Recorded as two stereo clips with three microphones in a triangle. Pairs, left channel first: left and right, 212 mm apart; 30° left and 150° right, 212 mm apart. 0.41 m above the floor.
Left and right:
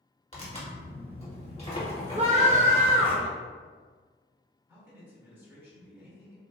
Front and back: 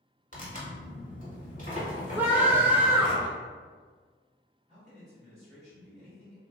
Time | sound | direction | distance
0.3 | tearing paper | 50° left | 1.3 m
2.2 | a scream | 75° right | 0.9 m
4.7 | a man speaking | 160° right | 1.6 m